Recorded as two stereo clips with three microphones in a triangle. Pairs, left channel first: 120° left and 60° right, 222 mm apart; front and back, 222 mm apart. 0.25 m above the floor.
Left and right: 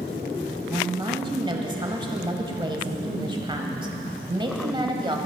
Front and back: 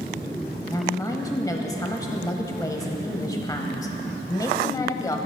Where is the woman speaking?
45° right, 1.0 m.